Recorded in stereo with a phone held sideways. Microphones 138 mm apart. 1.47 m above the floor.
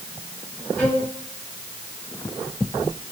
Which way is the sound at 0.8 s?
10° left (ahead or behind).